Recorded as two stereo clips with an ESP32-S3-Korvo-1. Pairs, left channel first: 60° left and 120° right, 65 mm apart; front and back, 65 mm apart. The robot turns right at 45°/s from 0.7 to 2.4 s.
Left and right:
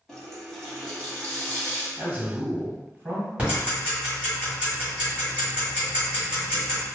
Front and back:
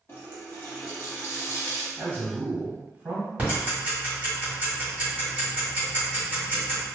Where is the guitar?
No guitar in this recording.